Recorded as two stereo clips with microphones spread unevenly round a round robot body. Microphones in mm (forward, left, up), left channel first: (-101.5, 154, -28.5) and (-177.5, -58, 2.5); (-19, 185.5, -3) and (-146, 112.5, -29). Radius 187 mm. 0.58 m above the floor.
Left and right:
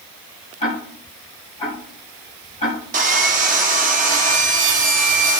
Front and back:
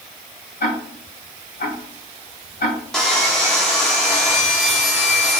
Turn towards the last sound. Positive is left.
turn(degrees=-75)